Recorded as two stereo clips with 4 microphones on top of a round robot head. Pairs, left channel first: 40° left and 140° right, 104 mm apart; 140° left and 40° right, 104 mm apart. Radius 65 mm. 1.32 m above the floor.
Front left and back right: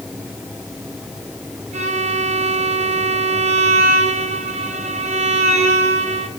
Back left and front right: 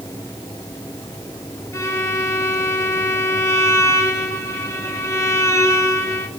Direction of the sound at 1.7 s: 155° right.